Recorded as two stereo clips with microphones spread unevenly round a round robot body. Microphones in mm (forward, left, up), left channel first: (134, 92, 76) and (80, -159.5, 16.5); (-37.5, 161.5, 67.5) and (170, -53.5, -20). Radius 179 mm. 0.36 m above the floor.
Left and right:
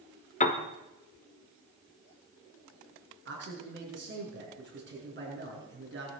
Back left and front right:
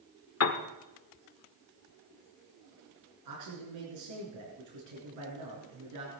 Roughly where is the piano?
Behind left.